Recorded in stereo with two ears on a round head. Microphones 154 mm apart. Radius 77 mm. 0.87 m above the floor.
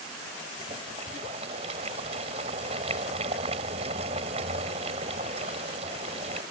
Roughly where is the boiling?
Right.